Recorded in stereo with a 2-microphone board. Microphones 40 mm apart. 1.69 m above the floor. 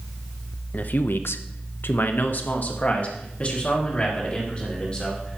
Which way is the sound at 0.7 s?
45° left (ahead or behind).